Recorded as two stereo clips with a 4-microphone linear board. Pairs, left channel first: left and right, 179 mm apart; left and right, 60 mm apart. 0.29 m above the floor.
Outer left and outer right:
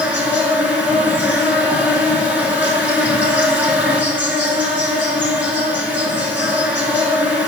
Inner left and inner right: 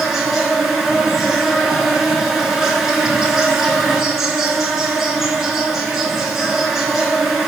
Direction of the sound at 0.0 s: 10° right (ahead or behind).